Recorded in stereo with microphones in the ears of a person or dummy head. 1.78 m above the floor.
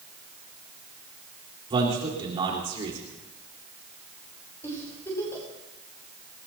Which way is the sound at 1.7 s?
30° right (ahead or behind).